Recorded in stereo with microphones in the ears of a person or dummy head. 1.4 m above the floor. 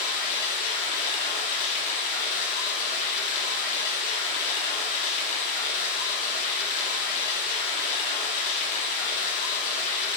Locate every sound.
0.0 s running water: 45° left (ahead or behind), 0.9 m